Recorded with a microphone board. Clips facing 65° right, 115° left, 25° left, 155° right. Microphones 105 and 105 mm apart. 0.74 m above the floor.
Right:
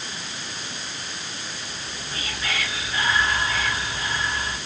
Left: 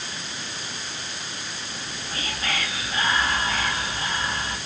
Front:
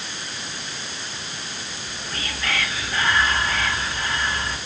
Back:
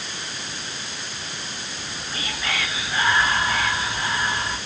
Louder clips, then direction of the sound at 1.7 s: Left 1 dB, even; 130° left.